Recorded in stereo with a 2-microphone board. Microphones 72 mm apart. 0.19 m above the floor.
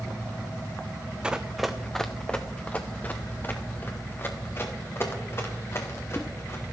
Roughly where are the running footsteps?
Centre.